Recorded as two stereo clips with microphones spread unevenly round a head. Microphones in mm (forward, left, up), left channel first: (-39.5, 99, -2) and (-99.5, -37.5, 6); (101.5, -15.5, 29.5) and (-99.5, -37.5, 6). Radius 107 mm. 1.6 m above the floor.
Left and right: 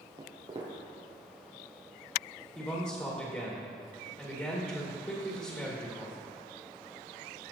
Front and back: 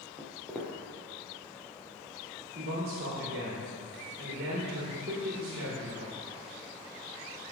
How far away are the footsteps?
About 1.9 m.